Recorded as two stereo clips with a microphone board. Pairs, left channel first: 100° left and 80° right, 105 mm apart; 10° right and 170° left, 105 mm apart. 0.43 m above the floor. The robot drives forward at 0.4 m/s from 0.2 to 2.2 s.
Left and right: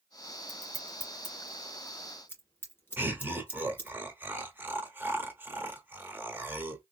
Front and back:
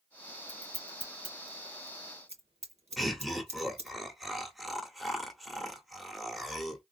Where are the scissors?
165° left, 1.1 m; by 4.0 s 170° left, 1.7 m.